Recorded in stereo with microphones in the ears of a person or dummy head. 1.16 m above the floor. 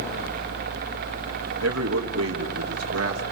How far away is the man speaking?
About 1.8 m.